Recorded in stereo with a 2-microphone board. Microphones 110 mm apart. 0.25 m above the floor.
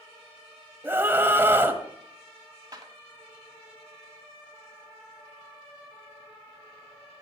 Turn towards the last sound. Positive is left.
turn(degrees=-35)  # may be behind; listen again after turning